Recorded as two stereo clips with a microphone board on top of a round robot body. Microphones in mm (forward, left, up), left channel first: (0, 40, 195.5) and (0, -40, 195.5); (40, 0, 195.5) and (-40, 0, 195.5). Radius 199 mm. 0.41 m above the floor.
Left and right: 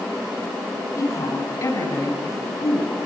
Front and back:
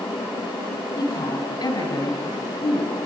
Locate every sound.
1.0 s a woman speaking: 35° left, 4.5 m